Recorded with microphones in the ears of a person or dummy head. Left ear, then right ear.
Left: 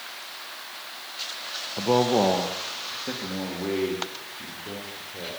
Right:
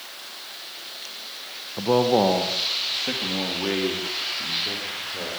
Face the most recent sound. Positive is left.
turn(degrees=-25)  # may be behind; listen again after turning